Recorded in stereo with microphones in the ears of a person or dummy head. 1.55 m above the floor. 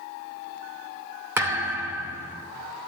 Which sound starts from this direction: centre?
A thud, at 1.4 s.